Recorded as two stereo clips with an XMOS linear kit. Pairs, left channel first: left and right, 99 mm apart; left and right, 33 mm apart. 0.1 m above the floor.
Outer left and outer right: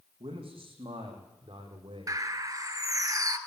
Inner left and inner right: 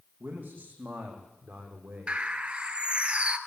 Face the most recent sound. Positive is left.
turn(degrees=-40)  # may be behind; listen again after turning